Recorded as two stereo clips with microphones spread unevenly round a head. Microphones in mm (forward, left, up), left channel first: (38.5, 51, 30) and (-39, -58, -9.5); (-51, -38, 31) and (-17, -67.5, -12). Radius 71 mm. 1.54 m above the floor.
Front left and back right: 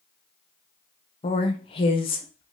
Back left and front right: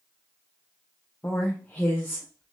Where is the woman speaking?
100° left, 0.7 m.